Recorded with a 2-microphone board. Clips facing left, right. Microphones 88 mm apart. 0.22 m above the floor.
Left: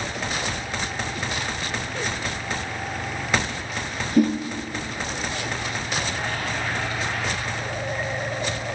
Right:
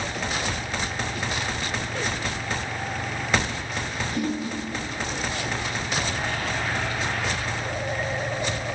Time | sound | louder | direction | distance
4.2 | a whoosh | left 9 dB | 45° left (ahead or behind) | 3.5 m